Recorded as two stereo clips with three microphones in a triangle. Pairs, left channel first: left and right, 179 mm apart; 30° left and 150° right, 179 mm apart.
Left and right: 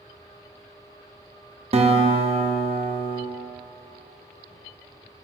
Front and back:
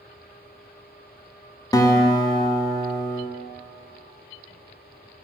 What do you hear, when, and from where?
1.7 s a guitar: 40° right, 0.5 m